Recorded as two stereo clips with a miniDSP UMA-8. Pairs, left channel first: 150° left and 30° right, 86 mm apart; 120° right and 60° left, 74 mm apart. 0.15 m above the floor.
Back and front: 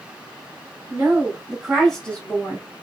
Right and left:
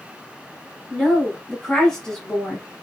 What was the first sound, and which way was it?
A woman speaking, 40° right.